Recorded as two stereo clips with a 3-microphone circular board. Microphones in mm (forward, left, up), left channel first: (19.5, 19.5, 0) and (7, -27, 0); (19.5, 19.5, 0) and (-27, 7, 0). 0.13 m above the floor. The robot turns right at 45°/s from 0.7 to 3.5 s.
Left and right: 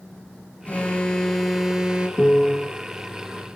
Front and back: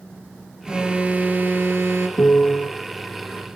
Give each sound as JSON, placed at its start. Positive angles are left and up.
{"t": 0.7, "sound": "an alarm", "azimuth_deg": 125, "distance_m": 3.5}
{"t": 2.2, "sound": "a piano", "azimuth_deg": 5, "distance_m": 1.9}